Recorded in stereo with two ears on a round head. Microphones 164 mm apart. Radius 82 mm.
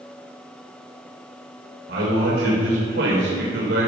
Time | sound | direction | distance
1.9 | a man speaking | 60° right (ahead or behind) | 3 m